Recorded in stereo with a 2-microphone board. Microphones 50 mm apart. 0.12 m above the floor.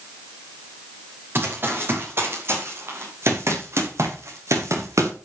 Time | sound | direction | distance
1.4 | running footsteps | 45° right (ahead or behind) | 6.5 m